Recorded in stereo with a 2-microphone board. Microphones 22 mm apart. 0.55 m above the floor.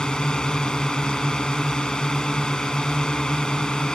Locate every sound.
0.0 s a drone: 45° left (ahead or behind)